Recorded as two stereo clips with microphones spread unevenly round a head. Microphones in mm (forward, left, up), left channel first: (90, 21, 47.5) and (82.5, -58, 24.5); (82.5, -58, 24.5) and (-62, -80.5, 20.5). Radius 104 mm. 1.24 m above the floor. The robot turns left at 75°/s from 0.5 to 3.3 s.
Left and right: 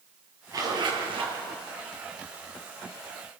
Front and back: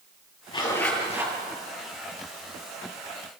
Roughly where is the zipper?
Ahead right.